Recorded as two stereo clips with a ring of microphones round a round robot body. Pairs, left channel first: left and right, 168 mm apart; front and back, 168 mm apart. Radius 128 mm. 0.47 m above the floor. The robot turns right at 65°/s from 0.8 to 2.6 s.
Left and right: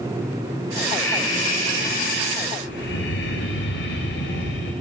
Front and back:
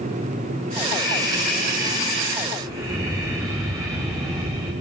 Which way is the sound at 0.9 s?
5° right.